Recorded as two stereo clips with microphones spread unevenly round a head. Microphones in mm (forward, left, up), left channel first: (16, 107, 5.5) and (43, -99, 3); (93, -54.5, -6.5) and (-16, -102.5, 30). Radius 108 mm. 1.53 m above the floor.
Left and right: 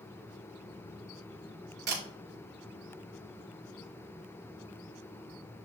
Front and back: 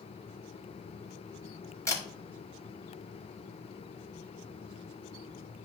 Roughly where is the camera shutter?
Ahead right.